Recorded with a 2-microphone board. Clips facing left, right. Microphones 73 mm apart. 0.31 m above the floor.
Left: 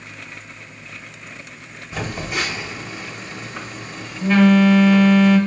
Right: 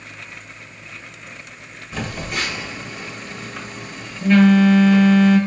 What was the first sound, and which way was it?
A phone buzzing, 5° left (ahead or behind).